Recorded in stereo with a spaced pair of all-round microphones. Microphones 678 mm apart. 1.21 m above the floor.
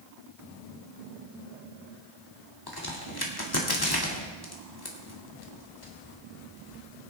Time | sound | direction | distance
2.7 | a crack | 30° left (ahead or behind) | 1.9 m